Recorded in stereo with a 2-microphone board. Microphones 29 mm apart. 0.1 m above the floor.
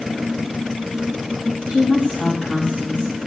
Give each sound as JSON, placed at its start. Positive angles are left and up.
{"t": 1.7, "sound": "a woman speaking", "side_deg": 50, "distance_m": 6.0}